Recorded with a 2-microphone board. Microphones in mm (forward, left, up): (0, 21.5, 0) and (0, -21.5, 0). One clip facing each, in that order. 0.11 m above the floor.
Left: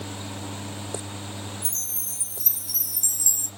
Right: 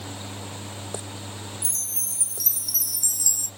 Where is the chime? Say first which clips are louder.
Right 1 dB; 30° left (ahead or behind), 0.9 m.